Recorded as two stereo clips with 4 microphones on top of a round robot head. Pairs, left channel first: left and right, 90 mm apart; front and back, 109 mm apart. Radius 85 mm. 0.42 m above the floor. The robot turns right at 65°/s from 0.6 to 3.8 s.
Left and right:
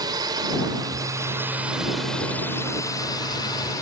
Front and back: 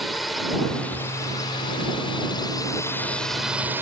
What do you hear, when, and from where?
0.0 s a drone: 90° right; by 3.8 s 120° left